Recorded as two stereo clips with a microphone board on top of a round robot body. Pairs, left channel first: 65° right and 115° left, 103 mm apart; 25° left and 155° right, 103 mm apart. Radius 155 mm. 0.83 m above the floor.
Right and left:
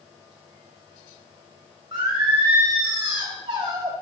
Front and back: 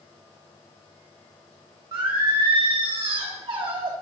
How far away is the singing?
About 1.7 m.